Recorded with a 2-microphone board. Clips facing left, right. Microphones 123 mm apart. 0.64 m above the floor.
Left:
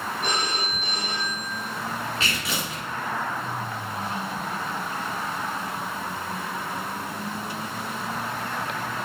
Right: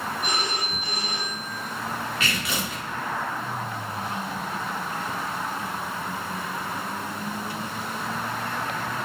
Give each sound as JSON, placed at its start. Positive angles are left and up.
{"t": 0.2, "sound": "a phone ringing", "side_deg": 60, "distance_m": 2.0}
{"t": 2.2, "sound": "tearing paper", "side_deg": 30, "distance_m": 1.7}